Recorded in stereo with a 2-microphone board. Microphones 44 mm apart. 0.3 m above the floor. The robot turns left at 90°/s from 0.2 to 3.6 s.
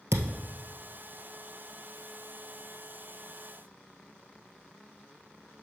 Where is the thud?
80° right, 1.3 m; by 0.3 s 90° right, 1.3 m.